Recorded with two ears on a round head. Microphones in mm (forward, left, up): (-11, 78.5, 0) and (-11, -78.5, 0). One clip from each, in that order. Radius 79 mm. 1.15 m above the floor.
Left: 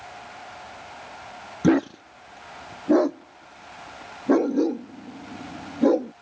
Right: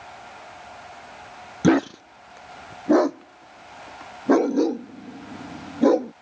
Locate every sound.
1.6 s a dog barking: 25° right (ahead or behind)